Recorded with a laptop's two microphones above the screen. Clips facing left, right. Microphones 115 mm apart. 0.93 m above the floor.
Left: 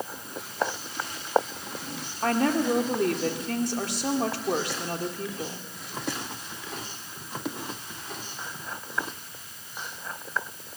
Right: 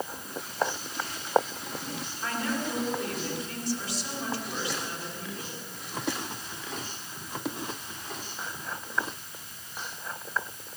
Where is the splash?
I don't hear a splash.